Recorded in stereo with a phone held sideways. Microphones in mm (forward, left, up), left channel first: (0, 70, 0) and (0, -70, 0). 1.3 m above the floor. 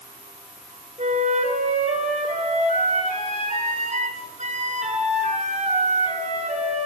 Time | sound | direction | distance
1.0 | a flute | 55° right (ahead or behind) | 8 m